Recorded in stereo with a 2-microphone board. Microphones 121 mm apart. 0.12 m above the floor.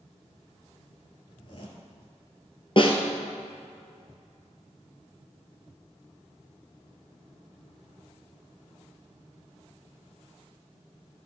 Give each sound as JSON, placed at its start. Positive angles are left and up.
{"t": 1.3, "sound": "a zipper", "side_deg": 45, "distance_m": 3.0}
{"t": 2.8, "sound": "a snare drum", "side_deg": 45, "distance_m": 1.6}